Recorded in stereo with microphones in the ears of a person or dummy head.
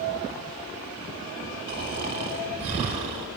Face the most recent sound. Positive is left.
turn(degrees=-55)  # may be behind; listen again after turning